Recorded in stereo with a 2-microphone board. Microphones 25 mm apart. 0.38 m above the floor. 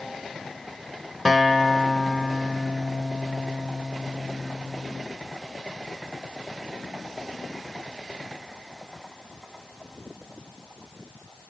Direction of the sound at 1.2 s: 5° right (ahead or behind).